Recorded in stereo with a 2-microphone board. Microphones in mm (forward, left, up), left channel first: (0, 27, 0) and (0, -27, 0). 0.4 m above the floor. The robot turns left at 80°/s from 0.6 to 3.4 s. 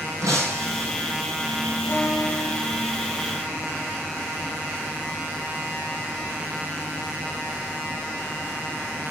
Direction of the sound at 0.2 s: 85° right.